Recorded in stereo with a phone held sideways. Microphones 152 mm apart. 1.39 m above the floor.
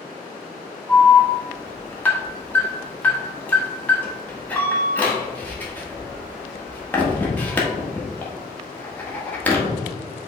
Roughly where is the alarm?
Centre.